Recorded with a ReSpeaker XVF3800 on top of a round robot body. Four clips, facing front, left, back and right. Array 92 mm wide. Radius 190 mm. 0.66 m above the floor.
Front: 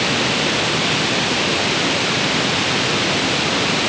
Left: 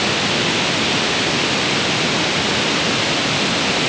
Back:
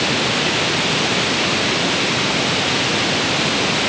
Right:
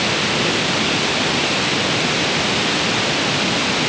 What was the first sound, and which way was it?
Only background noise.